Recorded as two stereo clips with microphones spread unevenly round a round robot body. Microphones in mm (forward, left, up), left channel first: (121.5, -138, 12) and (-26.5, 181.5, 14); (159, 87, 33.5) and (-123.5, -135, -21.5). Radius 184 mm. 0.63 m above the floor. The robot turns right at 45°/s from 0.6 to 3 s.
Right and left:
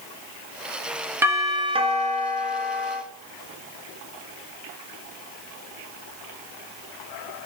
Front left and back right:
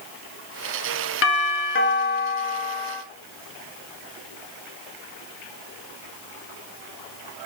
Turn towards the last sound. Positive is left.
turn(degrees=120)